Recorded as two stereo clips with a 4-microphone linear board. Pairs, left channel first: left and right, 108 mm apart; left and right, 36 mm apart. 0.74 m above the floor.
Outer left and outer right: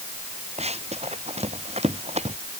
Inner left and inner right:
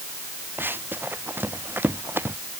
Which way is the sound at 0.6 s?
80° right.